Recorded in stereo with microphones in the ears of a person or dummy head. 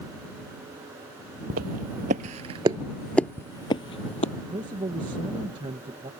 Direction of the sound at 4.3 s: 25° right (ahead or behind).